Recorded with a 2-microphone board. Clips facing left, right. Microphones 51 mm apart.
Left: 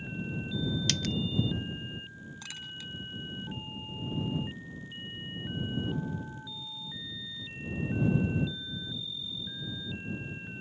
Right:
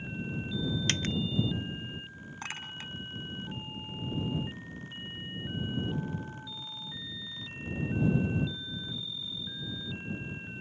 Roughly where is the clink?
Right.